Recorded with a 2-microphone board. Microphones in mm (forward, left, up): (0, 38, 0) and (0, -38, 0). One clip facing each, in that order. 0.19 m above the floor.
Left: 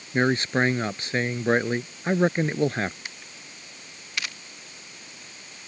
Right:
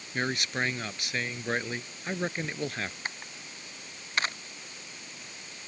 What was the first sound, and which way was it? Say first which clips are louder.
A man speaking: left 9 dB; 35° left (ahead or behind).